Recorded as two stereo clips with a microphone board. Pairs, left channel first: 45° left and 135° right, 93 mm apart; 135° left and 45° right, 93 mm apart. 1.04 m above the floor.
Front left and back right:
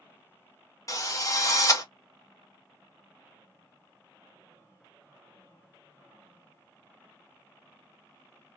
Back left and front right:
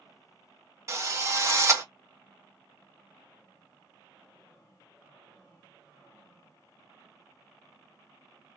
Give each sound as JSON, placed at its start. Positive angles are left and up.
{"t": 0.9, "sound": "a drill", "azimuth_deg": 0, "distance_m": 1.2}